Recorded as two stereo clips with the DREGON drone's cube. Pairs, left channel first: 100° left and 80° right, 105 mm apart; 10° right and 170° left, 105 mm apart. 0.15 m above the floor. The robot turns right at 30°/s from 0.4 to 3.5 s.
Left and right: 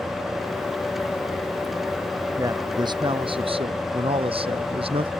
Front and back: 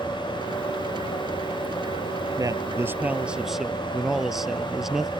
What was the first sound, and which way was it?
A man speaking, 135° right.